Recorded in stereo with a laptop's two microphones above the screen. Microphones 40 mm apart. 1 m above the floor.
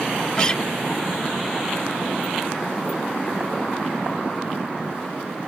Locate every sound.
0.4 s a guitar: 20° left (ahead or behind)